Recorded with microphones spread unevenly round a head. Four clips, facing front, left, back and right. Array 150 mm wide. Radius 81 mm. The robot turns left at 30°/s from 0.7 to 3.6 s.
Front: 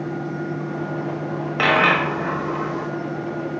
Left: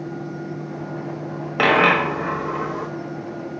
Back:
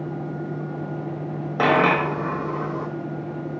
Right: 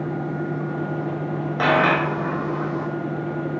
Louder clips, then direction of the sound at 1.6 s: Left 2 dB, even; 115° left.